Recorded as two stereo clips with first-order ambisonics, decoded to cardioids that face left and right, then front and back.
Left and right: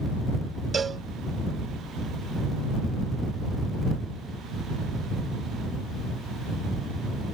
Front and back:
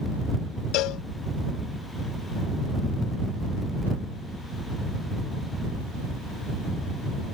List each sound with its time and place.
0.7 s a cowbell: 20° right